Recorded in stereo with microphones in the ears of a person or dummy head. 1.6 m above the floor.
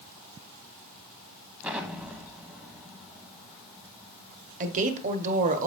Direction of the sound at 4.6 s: 45° right (ahead or behind).